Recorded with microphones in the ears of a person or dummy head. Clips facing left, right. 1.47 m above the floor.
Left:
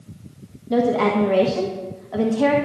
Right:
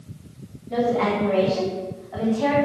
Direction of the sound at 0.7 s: 60° left (ahead or behind).